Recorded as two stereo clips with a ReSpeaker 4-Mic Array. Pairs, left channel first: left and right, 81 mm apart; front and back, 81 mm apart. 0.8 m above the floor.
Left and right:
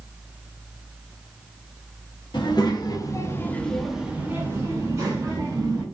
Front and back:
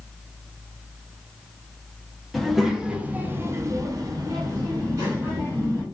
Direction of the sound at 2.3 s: 90° left.